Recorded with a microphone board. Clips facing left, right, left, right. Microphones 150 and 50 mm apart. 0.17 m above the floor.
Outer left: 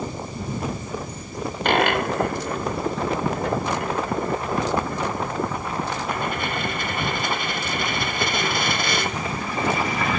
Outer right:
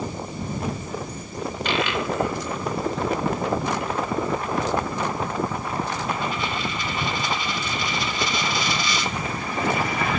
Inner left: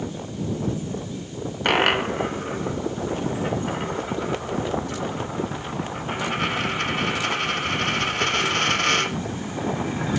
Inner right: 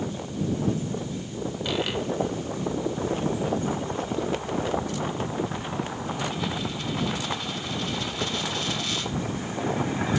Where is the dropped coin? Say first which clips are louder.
Outer left 5 dB, inner left 9 dB; 55° left (ahead or behind).